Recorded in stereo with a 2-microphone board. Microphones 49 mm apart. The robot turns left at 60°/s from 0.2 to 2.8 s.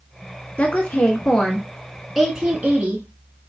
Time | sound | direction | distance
0.6 | a woman speaking | 80° left | 1.4 m